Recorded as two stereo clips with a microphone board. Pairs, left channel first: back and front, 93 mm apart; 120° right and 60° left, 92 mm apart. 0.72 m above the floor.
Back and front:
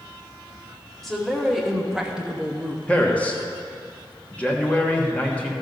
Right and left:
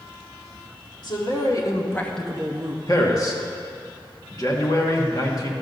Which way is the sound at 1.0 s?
90° right.